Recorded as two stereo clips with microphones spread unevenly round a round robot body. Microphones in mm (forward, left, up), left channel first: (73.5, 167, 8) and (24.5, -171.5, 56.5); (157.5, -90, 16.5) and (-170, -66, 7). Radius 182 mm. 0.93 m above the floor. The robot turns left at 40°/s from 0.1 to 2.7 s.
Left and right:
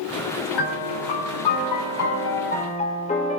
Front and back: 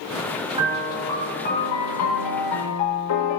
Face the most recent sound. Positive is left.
turn(degrees=10)